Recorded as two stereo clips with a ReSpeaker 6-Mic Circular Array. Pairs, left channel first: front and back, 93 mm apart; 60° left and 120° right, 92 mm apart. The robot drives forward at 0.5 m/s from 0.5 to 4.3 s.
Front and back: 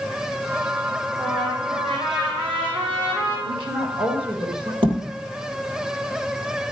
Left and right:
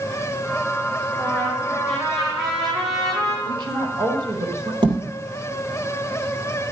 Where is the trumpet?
145° left, 4.5 m; by 3.4 s 155° left, 5.5 m.